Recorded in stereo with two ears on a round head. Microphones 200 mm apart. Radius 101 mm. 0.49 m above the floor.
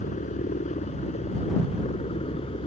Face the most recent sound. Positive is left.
turn(degrees=25)  # may be behind; listen again after turning